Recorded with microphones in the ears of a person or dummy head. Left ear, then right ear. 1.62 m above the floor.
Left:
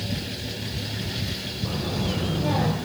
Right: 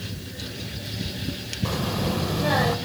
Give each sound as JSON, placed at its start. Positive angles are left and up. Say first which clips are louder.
{"t": 1.6, "sound": "a child speaking", "louder": "right 3 dB", "side_deg": -55, "distance_m": 5.5}